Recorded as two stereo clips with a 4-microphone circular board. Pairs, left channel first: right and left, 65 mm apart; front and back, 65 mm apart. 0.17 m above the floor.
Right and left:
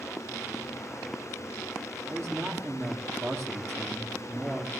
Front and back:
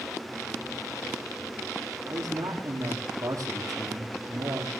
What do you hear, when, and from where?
2.1 s a man speaking: 145° left, 7 m